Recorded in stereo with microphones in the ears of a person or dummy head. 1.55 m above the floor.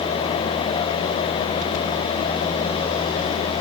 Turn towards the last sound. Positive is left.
No sound to turn to.